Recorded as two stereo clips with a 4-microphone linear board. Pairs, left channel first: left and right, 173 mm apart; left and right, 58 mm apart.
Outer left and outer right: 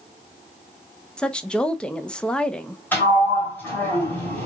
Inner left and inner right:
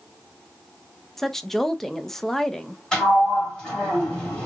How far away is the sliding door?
About 2.5 m.